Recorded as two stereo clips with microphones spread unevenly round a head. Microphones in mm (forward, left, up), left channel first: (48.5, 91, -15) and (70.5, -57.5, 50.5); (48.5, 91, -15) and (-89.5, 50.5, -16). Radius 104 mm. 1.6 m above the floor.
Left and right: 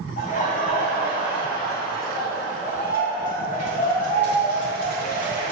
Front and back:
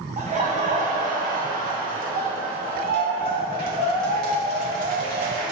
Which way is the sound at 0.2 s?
155° left.